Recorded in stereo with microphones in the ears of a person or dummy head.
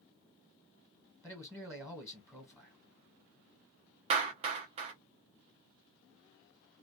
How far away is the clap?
About 0.6 m.